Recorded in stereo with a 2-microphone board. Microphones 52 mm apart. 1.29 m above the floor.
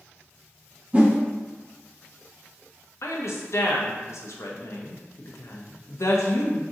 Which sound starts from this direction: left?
A woman speaking, at 3.0 s.